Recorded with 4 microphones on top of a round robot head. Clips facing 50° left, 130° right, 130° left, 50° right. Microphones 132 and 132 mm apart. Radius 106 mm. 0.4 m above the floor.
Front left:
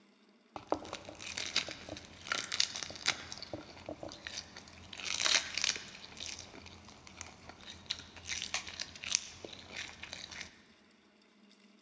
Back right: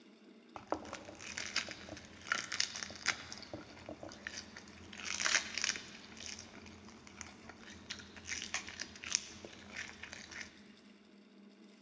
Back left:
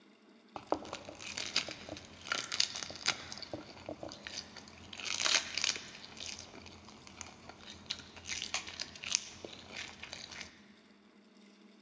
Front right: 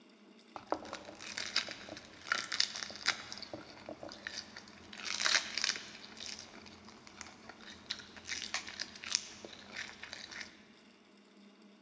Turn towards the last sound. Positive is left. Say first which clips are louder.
# front left 4 dB, back left 2 dB
turn(degrees=80)